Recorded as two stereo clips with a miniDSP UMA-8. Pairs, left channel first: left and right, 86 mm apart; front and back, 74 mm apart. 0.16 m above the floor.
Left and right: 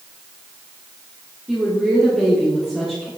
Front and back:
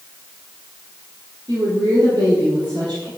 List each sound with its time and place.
1.5 s a woman speaking: straight behind, 4.5 m